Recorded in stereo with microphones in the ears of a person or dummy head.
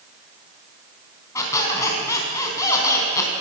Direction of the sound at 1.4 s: 15° left (ahead or behind).